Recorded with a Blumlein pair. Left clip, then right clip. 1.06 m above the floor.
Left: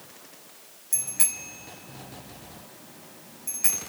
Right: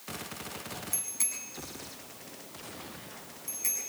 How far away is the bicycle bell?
About 5.5 m.